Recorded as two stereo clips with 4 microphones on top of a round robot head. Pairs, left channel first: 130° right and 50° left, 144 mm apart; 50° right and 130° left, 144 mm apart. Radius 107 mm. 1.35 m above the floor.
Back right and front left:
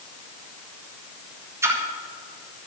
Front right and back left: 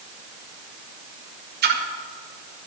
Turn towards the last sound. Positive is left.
turn(degrees=125)